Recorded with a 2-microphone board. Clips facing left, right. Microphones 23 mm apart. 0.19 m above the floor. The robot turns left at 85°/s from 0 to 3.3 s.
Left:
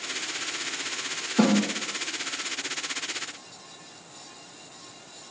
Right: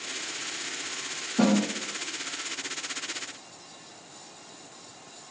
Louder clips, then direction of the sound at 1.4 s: Left 1 dB; 50° left (ahead or behind).